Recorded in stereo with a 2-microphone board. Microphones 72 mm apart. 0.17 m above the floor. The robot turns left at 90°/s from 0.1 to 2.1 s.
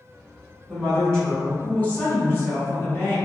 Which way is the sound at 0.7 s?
10° right (ahead or behind).